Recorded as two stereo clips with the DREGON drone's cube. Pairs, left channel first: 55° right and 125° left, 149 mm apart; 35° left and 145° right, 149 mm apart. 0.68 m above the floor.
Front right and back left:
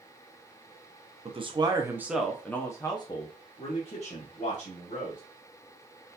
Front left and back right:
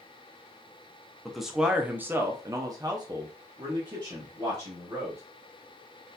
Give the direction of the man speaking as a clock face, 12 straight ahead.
8 o'clock.